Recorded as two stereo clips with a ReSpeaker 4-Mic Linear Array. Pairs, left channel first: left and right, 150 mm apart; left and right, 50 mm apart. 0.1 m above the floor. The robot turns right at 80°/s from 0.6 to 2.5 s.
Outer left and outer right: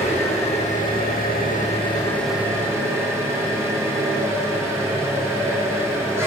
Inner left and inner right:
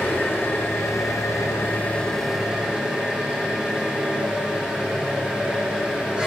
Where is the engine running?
45° left, 4 m; by 6.3 s 165° right, 4 m.